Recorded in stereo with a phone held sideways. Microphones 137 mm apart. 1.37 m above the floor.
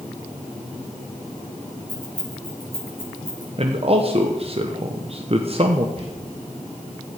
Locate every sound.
1.9 s keys jangling: 35° right (ahead or behind), 5.5 m; by 3.5 s 15° right (ahead or behind), 6.5 m
3.6 s a man speaking: 45° right (ahead or behind), 1.0 m
6.0 s whispering: 50° right (ahead or behind), 4.5 m